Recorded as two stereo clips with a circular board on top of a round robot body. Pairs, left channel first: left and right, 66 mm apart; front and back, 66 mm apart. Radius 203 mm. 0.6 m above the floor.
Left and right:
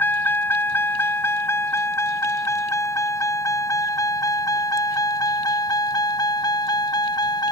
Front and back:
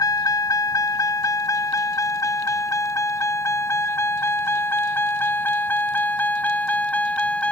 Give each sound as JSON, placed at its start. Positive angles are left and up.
{"t": 0.0, "sound": "a vehicle", "azimuth_deg": 30}